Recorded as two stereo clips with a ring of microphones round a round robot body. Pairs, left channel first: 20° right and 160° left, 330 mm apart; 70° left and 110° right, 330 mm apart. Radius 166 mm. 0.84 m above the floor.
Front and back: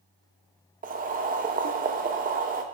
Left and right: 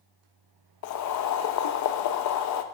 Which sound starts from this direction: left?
Boiling, at 0.8 s.